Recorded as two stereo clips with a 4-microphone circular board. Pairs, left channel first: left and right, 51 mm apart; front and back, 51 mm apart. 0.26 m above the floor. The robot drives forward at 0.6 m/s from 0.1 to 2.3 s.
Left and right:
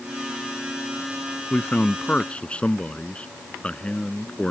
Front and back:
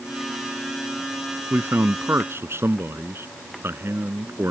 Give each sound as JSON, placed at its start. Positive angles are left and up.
{"t": 1.5, "sound": "a man speaking", "azimuth_deg": 150}